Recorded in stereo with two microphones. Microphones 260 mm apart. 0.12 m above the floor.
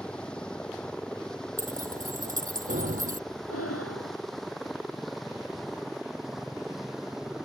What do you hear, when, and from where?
0.0 s a helicopter: 5° left (ahead or behind); by 7.5 s centre (ahead or behind)
1.6 s keys jangling: 35° right (ahead or behind)
3.5 s breathing: 65° left (ahead or behind)